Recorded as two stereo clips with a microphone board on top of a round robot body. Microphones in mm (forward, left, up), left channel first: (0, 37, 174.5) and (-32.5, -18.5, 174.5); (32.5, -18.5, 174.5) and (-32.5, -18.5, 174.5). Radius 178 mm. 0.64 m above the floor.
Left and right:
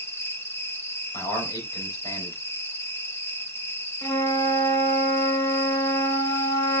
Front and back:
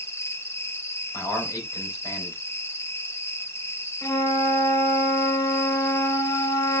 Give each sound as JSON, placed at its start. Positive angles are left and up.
{"t": 0.0, "sound": "an insect", "azimuth_deg": 25, "distance_m": 2.0}
{"t": 1.1, "sound": "a man speaking", "azimuth_deg": 40, "distance_m": 4.5}
{"t": 4.0, "sound": "a flute", "azimuth_deg": 35, "distance_m": 3.0}